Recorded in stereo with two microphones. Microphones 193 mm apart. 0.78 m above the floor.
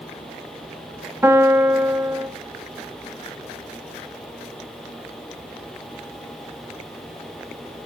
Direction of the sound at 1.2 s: 10° right (ahead or behind).